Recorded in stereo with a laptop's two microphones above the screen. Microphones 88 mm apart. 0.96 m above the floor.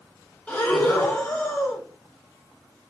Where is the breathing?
15° left (ahead or behind), 2.0 m.